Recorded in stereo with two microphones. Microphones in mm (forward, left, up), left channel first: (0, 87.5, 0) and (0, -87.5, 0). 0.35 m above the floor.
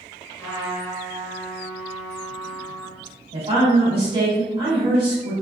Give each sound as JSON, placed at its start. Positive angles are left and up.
{"t": 0.4, "sound": "a trumpet", "side_deg": 15, "distance_m": 1.0}
{"t": 3.3, "sound": "a woman speaking", "side_deg": -30, "distance_m": 1.5}